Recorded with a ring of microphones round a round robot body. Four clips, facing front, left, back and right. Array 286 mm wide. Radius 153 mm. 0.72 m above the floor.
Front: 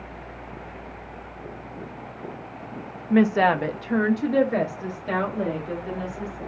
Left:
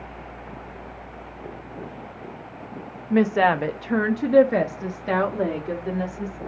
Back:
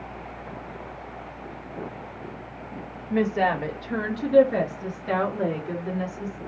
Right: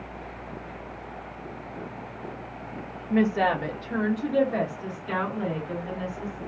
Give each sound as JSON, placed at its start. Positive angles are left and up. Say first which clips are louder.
{"t": 3.1, "sound": "a woman speaking", "louder": "left 4 dB, front 4 dB", "azimuth_deg": 35, "distance_m": 0.7}